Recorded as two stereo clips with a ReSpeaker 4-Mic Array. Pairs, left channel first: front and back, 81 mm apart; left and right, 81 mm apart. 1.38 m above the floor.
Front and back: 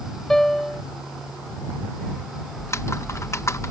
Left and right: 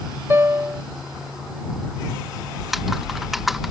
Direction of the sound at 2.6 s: 5° right.